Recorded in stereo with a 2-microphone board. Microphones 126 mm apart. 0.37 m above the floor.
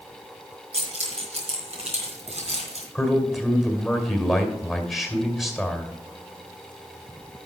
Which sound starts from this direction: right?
Keys jangling, at 0.7 s.